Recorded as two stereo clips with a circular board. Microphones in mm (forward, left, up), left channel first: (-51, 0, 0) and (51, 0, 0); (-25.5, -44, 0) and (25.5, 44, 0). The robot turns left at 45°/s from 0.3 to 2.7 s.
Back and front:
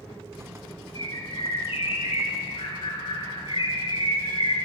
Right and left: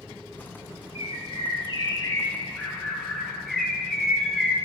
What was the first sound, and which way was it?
A bird, 125° right.